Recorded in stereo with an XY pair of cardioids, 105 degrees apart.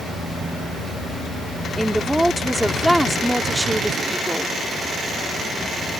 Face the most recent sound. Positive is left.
turn(degrees=-5)